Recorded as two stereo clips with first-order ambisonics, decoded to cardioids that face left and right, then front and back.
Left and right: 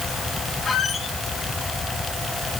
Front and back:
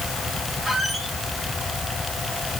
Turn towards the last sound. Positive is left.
turn(degrees=120)